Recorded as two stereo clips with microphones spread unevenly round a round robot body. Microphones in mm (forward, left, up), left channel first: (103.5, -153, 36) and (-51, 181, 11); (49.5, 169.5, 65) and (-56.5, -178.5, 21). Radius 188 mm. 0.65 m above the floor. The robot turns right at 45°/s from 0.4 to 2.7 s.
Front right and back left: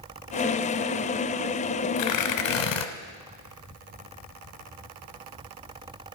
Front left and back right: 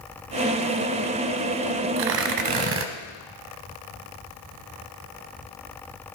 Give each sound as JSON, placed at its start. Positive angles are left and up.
{"t": 2.0, "sound": "tearing paper", "azimuth_deg": -85, "distance_m": 1.1}